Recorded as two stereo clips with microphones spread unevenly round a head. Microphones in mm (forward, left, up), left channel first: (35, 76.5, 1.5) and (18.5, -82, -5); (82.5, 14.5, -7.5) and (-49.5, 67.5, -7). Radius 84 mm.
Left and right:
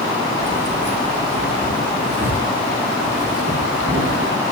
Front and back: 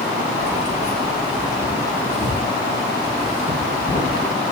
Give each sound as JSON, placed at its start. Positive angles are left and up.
{"t": 0.4, "sound": "keys jangling", "azimuth_deg": -110, "distance_m": 6.0}